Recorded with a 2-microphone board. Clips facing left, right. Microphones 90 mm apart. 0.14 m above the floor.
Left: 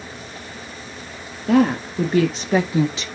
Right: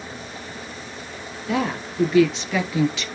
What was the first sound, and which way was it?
A woman speaking, 55° left (ahead or behind).